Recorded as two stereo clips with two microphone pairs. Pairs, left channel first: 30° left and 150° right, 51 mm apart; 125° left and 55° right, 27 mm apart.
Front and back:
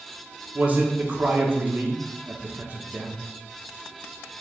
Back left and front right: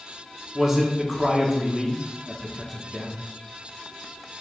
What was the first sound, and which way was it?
A man speaking, 120° right.